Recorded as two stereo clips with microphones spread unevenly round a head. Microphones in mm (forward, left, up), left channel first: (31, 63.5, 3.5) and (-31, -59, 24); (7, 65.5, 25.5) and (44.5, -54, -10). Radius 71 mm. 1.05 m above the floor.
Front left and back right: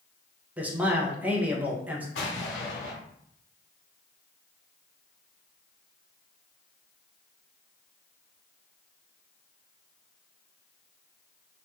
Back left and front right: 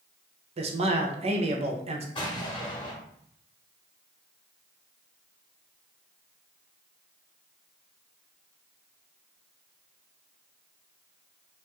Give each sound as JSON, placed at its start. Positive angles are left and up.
{"t": 0.6, "sound": "a man speaking", "azimuth_deg": -35, "distance_m": 0.7}
{"t": 2.1, "sound": "an explosion", "azimuth_deg": 65, "distance_m": 1.3}